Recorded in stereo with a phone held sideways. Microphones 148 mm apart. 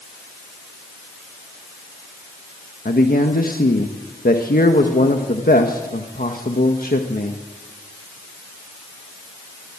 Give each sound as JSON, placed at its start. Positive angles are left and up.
{"t": 2.9, "sound": "a man speaking", "side_deg": 65, "distance_m": 1.6}